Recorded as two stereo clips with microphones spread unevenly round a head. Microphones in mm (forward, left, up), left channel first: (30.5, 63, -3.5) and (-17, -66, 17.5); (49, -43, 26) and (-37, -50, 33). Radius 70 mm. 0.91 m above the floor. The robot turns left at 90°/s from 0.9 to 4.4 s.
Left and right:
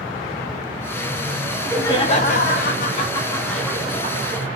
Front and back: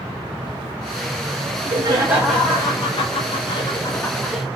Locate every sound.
1.5 s laughter: 170° left, 1.2 m; by 4.5 s 95° right, 1.2 m